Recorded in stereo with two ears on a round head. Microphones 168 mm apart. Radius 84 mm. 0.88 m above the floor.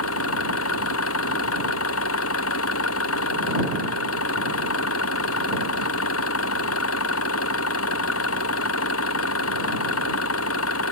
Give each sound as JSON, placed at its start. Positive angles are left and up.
{"t": 0.0, "sound": "an engine running", "side_deg": 90}